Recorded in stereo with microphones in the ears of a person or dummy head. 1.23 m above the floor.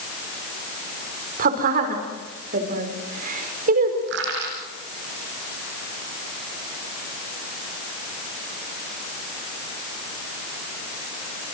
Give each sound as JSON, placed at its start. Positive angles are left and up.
{"t": 1.4, "sound": "a woman speaking", "side_deg": -50, "distance_m": 4.5}
{"t": 4.1, "sound": "crushing", "side_deg": -65, "distance_m": 9.0}